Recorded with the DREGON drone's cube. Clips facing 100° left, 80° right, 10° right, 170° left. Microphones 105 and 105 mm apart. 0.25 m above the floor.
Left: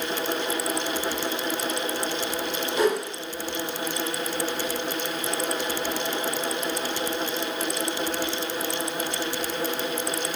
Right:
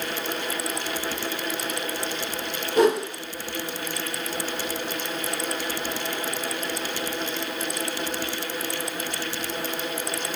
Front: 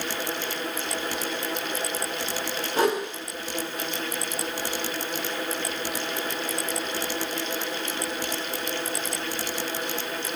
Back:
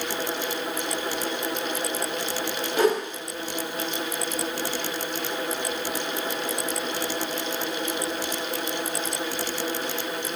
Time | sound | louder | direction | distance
2.8 | a whoosh | right 4 dB, back 2 dB | 60° right | 2.5 m